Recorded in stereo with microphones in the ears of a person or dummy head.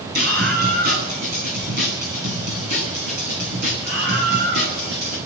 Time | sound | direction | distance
0.1 | a scream | 50° right (ahead or behind) | 10 m